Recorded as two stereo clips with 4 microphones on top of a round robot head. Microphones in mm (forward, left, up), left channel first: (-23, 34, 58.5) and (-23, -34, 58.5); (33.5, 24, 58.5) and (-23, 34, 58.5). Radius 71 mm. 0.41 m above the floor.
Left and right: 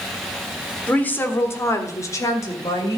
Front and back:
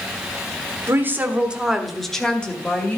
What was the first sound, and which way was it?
A woman speaking, 150° left.